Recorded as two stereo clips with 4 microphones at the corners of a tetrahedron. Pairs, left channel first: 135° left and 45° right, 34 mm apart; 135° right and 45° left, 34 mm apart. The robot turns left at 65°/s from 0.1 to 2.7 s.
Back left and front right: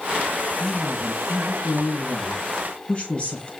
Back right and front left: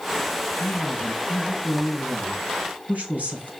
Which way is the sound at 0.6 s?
145° right.